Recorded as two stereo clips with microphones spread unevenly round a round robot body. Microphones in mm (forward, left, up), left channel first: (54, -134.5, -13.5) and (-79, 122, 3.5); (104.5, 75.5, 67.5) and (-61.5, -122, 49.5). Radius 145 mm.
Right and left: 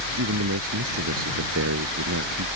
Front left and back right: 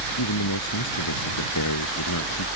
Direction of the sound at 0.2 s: 70° left.